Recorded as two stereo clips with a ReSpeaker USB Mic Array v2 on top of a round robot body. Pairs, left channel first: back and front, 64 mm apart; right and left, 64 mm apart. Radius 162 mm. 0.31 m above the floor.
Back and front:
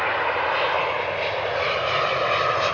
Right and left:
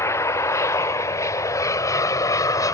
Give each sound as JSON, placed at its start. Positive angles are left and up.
{"t": 0.0, "sound": "an aircraft", "azimuth_deg": -90}